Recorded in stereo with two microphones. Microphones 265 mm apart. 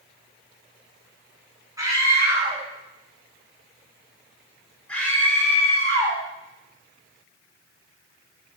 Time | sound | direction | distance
1.8 | a scream | 15° right (ahead or behind) | 8 m